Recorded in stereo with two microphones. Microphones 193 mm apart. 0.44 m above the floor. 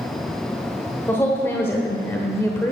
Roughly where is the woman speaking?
Centre.